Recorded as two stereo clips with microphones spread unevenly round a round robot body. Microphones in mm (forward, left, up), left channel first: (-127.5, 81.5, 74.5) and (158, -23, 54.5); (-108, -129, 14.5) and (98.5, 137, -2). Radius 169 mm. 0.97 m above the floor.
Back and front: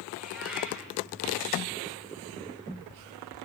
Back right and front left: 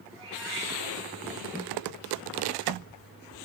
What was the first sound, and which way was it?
A cat meowing, 65° left.